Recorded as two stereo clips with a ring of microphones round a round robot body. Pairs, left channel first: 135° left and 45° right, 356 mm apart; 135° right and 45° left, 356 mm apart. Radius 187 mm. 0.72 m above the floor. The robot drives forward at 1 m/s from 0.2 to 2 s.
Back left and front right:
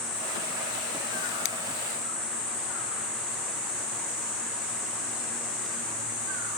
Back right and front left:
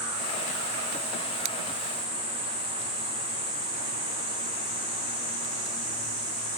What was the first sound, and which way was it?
Scissors, 95° left.